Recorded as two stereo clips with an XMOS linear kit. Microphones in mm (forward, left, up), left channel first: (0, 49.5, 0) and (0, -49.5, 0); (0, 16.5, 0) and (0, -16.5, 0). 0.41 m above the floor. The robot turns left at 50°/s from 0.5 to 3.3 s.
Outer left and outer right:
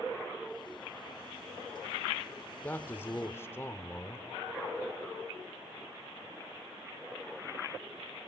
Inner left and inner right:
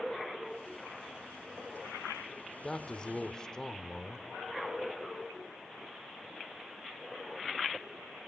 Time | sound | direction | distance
2.6 | a man speaking | 20° left (ahead or behind) | 0.8 m